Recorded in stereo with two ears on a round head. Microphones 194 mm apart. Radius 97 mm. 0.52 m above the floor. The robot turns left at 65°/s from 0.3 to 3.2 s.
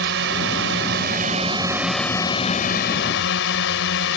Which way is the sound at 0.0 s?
75° right.